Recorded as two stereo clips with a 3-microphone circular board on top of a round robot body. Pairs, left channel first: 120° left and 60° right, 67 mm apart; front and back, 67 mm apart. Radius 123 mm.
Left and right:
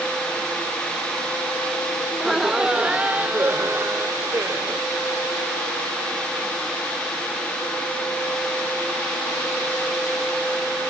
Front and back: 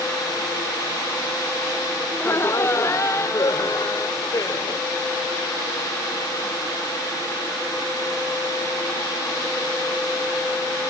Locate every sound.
2.1 s laughter: 30° left; by 4.9 s 20° right